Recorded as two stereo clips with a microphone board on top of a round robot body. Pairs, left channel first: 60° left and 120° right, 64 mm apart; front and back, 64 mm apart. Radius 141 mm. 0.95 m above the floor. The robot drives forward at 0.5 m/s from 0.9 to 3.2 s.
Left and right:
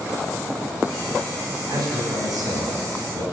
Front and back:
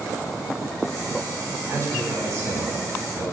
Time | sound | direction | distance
1.7 | a man speaking | 145° right | 8.5 m